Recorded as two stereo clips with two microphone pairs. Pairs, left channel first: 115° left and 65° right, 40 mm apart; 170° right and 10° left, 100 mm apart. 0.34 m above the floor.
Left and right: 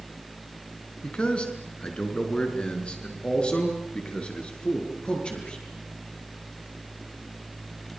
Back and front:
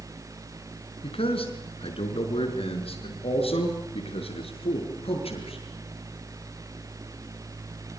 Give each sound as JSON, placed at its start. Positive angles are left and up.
{"t": 1.0, "sound": "a man speaking", "azimuth_deg": 175, "distance_m": 4.5}